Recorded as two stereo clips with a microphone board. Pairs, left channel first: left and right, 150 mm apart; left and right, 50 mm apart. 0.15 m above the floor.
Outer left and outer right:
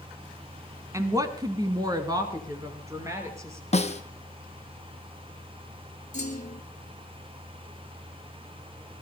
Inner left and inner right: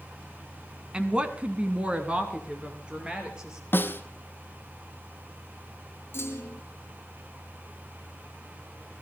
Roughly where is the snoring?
No snoring in this recording.